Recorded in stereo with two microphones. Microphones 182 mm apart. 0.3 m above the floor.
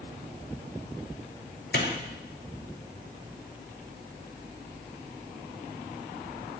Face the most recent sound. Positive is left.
turn(degrees=75)  # may be behind; listen again after turning